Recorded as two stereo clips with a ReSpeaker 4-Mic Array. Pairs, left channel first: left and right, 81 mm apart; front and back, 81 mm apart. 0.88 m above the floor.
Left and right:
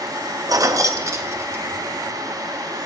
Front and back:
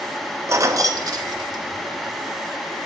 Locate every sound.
0.5 s keys jangling: 130° right, 0.7 m; by 2.0 s 150° right, 1.5 m